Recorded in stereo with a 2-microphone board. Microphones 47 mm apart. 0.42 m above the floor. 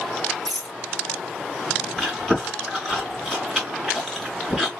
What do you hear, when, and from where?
0.5 s a rattle: 20° left (ahead or behind), 2 m
2.0 s chewing: 5° left (ahead or behind), 2.5 m